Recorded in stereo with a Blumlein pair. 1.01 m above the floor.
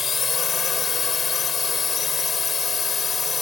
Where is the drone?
20° left.